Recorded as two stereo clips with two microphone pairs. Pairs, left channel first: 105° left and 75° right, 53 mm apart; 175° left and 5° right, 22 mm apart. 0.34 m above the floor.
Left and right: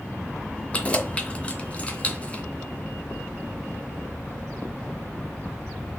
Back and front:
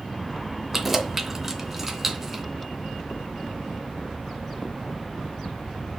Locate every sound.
0.7 s keys jangling: 75° left, 0.6 m